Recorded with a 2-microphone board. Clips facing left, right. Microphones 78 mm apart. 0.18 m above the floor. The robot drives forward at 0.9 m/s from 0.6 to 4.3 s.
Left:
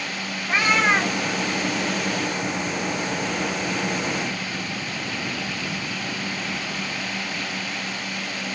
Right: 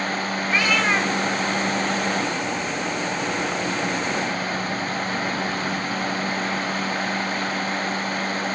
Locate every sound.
0.5 s a cat meowing: 20° left (ahead or behind), 7 m